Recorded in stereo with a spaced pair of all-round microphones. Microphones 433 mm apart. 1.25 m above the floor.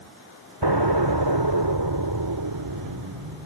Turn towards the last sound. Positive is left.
turn(degrees=-70)  # may be behind; listen again after turning